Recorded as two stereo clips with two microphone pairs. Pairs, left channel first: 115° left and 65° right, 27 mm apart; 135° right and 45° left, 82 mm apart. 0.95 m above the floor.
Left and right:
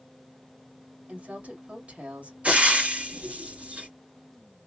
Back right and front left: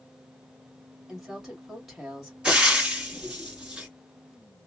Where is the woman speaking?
45° right, 2 m.